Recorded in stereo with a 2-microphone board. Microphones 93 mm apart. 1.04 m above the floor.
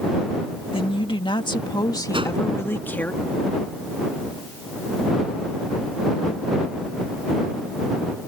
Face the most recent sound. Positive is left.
turn(degrees=-70)  # may be behind; listen again after turning